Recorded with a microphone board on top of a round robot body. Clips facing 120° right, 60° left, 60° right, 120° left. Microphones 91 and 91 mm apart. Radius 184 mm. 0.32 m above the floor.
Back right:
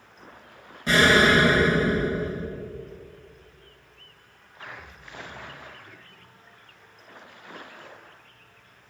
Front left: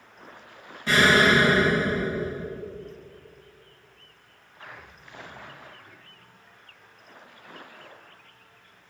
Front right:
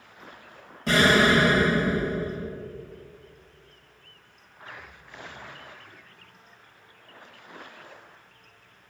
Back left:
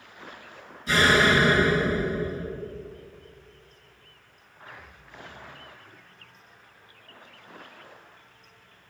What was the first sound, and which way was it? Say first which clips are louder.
An explosion: back right 1 dB, front right 1 dB; 45° right.